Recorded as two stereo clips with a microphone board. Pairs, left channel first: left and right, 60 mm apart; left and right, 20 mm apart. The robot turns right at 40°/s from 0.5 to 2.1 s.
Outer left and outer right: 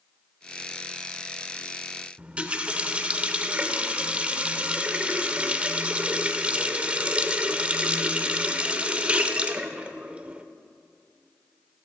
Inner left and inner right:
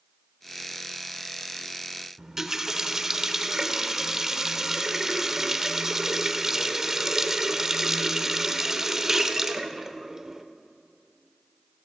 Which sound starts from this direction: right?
A running tap, at 2.2 s.